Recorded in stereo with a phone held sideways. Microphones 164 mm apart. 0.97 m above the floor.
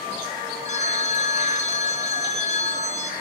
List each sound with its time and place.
0.7 s a phone ringing: 45° left (ahead or behind), 0.6 m